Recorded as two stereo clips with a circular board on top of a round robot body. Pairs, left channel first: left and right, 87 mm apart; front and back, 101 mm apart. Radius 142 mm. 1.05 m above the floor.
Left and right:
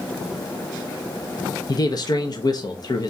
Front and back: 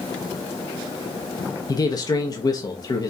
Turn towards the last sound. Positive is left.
turn(degrees=50)